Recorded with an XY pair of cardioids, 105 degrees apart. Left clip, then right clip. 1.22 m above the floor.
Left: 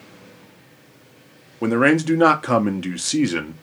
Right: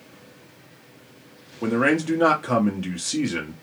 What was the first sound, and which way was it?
A man speaking, 40° left.